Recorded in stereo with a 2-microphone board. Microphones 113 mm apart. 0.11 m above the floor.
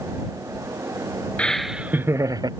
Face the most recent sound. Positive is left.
turn(degrees=-35)  # may be behind; listen again after turning